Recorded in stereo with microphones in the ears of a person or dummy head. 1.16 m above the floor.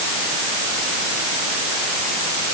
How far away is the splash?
I don't hear a splash.